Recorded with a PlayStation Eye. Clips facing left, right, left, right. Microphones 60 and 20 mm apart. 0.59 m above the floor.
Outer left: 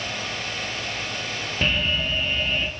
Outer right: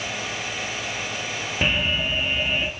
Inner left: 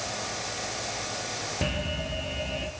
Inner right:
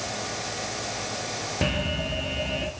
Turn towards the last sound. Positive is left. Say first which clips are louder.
# outer right 1 dB, inner right 6 dB
turn(degrees=-15)  # may be behind; listen again after turning